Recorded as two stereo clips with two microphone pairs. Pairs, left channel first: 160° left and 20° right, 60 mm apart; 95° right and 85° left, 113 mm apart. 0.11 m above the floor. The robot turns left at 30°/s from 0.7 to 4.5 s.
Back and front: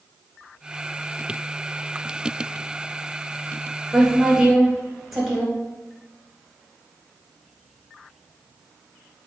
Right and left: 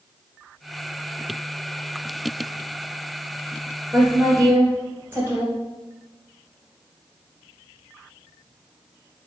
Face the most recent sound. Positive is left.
turn(degrees=55)